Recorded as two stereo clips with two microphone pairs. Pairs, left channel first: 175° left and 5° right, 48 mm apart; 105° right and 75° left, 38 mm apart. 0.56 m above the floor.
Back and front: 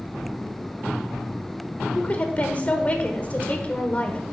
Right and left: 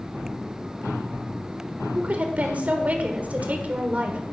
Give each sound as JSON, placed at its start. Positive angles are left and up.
{"t": 1.9, "sound": "a woman speaking", "azimuth_deg": 120, "distance_m": 1.5}